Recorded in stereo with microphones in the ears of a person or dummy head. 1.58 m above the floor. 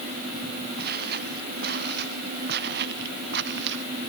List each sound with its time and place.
0.8 s footsteps: 55° right (ahead or behind); by 3.9 s 70° right (ahead or behind)